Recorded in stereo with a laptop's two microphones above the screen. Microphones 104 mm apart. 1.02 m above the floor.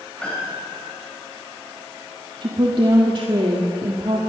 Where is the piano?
10° left (ahead or behind), 6.5 m.